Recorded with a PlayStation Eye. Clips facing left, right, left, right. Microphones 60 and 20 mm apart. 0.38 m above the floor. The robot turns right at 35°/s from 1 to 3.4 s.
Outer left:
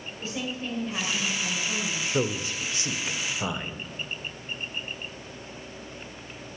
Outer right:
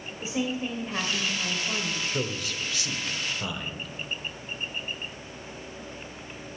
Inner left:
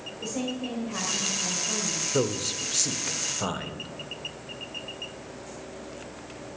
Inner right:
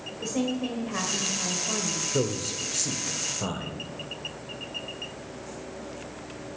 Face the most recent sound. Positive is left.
turn(degrees=20)  # may be behind; listen again after turning